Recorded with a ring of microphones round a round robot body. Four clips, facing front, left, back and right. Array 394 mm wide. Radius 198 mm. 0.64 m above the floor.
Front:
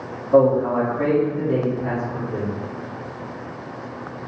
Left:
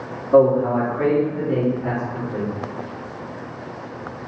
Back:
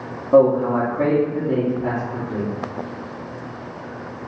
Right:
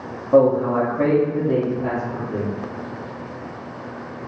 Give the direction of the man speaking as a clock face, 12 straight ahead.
5 o'clock.